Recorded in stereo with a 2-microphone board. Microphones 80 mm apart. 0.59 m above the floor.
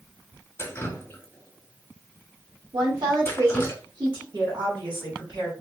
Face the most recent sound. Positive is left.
turn(degrees=-60)  # may be behind; listen again after turning